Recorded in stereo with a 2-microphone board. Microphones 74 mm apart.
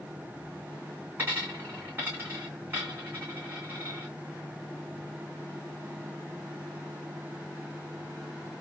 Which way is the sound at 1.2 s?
25° right (ahead or behind).